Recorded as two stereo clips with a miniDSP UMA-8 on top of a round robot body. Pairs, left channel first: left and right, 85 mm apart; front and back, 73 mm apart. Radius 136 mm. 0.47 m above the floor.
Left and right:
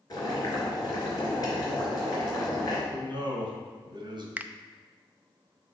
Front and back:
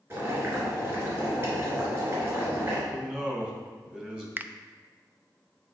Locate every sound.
0.1 s boiling: 130° left, 3 m
2.9 s a man speaking: 105° right, 2 m
4.4 s a finger snap: 145° right, 0.5 m